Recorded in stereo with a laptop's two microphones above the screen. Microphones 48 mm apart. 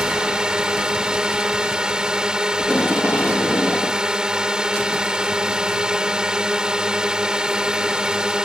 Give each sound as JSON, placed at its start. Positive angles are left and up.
{"t": 0.0, "sound": "a drone", "side_deg": -15}
{"t": 2.6, "sound": "tape being pulled", "side_deg": 50}